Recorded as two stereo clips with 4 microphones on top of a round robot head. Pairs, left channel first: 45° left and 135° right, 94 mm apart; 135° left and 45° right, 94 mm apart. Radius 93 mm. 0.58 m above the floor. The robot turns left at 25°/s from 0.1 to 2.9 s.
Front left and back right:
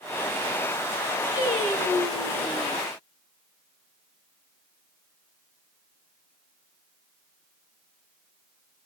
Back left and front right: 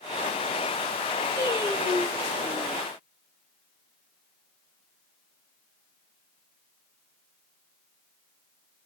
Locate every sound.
1.4 s singing: 20° left, 4.5 m; by 2.8 s 15° right, 4.5 m